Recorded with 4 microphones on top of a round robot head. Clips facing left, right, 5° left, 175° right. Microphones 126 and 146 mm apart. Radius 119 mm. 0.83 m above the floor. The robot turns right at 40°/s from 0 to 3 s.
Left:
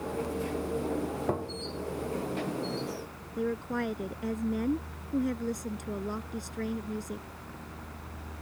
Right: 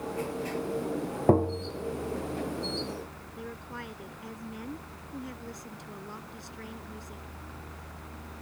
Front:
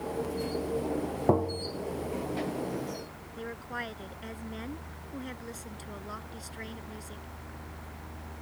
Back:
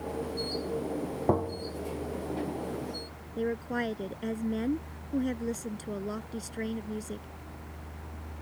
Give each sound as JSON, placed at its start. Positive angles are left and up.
{"t": 1.3, "sound": "tapping", "azimuth_deg": -75}
{"t": 3.4, "sound": "a woman speaking", "azimuth_deg": 145}